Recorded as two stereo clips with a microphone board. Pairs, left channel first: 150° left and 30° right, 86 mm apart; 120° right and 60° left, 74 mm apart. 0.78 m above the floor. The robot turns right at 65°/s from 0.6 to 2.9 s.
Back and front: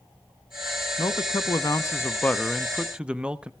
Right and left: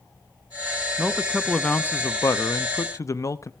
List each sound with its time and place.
1.0 s a man speaking: 130° left, 0.6 m; by 3.5 s 105° right, 0.6 m